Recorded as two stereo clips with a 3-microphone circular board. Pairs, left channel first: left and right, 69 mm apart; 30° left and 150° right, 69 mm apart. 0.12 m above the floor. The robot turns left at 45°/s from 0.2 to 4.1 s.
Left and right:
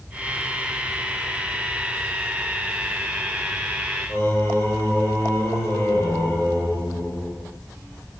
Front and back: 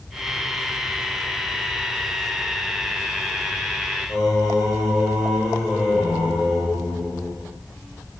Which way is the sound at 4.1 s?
125° left.